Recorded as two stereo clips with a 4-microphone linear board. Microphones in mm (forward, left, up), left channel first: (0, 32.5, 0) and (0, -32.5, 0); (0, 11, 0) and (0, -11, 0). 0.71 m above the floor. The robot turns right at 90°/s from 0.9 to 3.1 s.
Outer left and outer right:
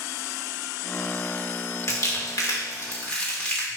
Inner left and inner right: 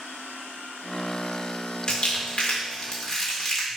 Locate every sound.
1.9 s crumpling: 50° left (ahead or behind), 1.9 m; by 3.7 s 15° left (ahead or behind), 1.9 m